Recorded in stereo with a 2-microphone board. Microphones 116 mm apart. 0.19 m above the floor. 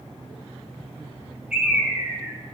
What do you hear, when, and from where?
1.5 s a bird: 5° right (ahead or behind), 7.5 m